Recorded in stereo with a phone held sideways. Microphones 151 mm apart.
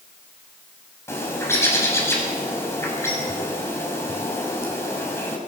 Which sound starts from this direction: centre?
A bird, at 1.1 s.